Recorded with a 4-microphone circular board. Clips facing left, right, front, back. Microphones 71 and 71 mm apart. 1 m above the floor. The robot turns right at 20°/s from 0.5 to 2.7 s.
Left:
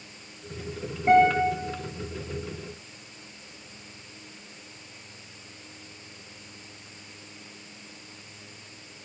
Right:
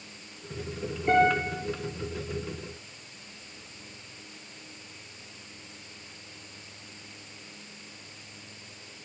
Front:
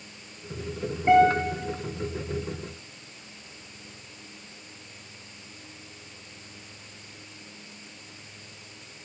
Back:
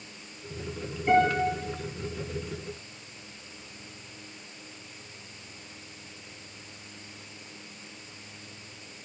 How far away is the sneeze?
I don't hear a sneeze.